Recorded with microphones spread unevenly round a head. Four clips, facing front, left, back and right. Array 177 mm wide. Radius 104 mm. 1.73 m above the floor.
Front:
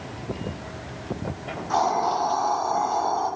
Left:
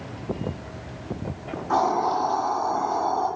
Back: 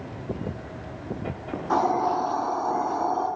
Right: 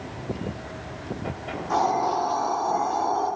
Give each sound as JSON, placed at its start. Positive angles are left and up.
{"t": 1.5, "sound": "a hiss", "azimuth_deg": 165, "distance_m": 7.5}